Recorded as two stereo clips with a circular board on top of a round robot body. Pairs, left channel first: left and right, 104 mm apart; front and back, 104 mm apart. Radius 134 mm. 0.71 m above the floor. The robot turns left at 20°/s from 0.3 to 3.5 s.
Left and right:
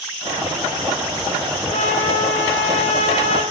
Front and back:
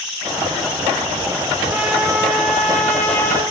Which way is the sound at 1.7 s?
105° left.